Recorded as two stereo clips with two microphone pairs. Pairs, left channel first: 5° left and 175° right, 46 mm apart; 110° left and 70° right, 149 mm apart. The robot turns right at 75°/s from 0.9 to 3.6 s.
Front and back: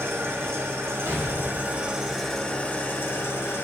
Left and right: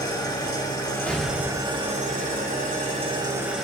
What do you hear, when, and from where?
0.0 s an engine running: 175° left, 1.5 m; by 3.6 s 20° left, 1.5 m
1.1 s an explosion: 165° right, 1.9 m; by 2.5 s 55° right, 1.9 m